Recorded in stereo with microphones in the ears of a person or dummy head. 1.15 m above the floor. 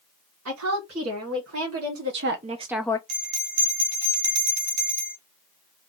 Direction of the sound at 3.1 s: 40° right (ahead or behind).